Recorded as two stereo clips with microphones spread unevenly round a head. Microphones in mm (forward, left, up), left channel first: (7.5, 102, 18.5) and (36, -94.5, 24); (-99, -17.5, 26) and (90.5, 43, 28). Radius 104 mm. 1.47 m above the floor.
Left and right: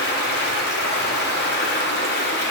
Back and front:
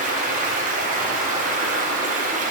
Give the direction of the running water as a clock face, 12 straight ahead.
10 o'clock.